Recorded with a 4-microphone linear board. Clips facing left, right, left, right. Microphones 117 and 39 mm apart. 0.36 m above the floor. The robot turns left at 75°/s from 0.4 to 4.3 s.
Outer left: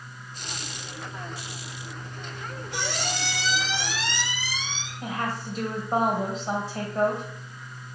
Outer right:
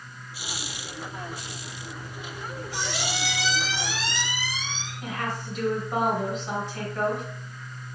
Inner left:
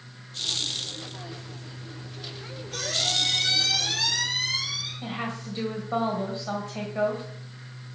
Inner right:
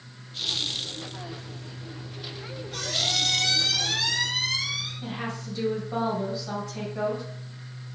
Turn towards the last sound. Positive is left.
turn(degrees=35)  # may be behind; listen again after turning